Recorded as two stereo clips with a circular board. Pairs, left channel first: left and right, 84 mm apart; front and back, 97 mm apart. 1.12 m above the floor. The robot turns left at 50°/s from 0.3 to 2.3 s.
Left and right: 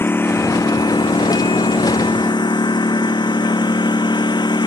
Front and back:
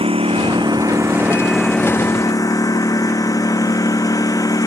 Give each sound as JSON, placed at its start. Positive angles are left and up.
{"t": 0.0, "sound": "a lawn mower", "azimuth_deg": 155}